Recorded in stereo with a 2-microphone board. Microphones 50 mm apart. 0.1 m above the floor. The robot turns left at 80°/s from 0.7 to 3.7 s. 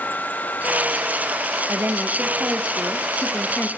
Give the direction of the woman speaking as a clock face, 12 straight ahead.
3 o'clock.